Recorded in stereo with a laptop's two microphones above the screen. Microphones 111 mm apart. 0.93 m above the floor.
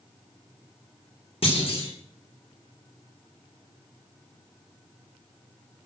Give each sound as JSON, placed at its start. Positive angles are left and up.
{"t": 1.4, "sound": "a clunk", "side_deg": 60, "distance_m": 2.5}